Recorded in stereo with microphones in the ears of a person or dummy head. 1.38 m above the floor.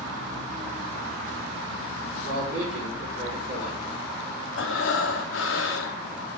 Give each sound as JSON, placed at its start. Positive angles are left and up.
{"t": 2.2, "sound": "a man speaking", "side_deg": -65, "distance_m": 5.0}
{"t": 4.6, "sound": "breathing", "side_deg": 70, "distance_m": 0.9}